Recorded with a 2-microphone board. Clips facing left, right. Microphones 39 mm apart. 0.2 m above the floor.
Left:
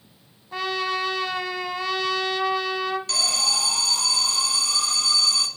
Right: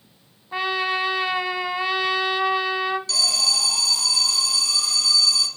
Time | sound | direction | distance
0.5 | a trumpet | 20° right (ahead or behind) | 0.6 m
3.1 | an alarm | 50° left (ahead or behind) | 1.0 m